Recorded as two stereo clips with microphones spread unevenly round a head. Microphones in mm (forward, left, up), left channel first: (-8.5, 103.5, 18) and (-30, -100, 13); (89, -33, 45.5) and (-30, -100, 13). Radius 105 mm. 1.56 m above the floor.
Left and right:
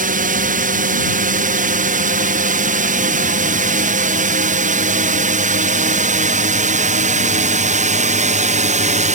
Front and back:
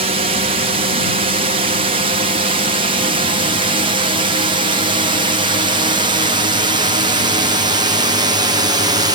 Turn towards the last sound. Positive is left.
turn(degrees=-130)